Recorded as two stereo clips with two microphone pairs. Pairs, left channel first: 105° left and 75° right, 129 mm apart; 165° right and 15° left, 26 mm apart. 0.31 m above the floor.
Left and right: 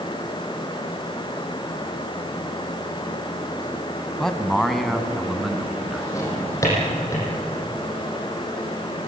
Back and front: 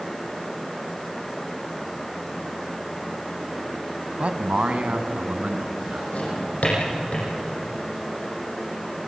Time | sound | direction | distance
4.2 | a man speaking | 20° left | 1.9 m
6.1 | a drawer | 170° left | 8 m